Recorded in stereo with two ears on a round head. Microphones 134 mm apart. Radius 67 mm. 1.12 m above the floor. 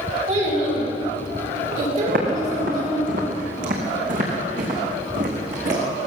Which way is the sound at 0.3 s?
45° right (ahead or behind).